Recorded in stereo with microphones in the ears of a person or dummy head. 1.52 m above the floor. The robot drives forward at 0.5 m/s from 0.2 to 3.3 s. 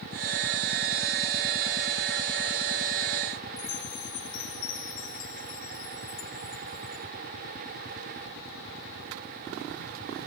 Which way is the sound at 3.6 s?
75° left (ahead or behind).